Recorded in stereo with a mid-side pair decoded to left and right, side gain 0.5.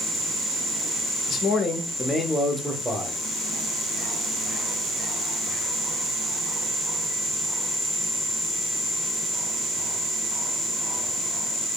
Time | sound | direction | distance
1.3 | a man speaking | 60° left | 0.8 m